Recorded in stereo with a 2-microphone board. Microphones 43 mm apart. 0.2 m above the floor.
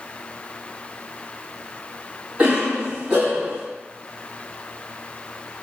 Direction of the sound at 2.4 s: 20° right (ahead or behind).